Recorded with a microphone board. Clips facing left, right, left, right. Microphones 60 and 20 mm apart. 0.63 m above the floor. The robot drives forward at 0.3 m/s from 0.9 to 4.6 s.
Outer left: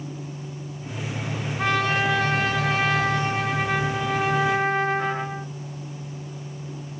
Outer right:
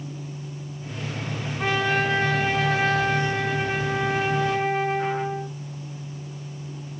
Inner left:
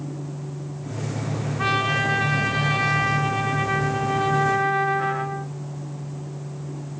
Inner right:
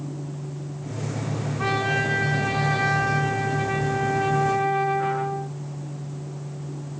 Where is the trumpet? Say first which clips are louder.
Even, inner left 2 dB; 75° left (ahead or behind), 1.2 m; by 5.5 s 65° left (ahead or behind), 1.3 m.